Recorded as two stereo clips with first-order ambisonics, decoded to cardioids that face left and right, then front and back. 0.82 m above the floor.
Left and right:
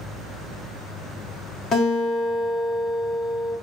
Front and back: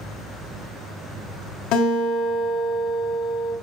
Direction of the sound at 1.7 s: 30° left.